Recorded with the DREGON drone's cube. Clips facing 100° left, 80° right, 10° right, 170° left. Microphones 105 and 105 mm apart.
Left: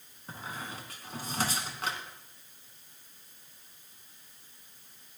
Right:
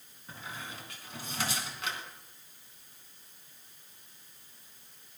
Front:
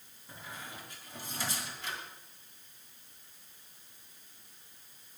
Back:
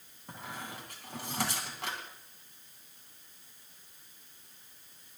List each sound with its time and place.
0.3 s a squeak: 150° left, 3 m